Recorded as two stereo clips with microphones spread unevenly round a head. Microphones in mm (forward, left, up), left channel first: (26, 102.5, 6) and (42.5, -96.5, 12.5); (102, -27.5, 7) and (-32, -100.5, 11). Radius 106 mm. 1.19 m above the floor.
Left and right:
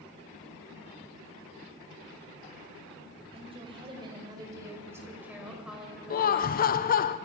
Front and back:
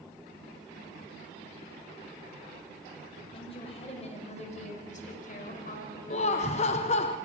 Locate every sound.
3.3 s a woman speaking: 25° right, 5.5 m; by 6.6 s 10° left, 5 m
6.1 s laughter: 65° left, 0.6 m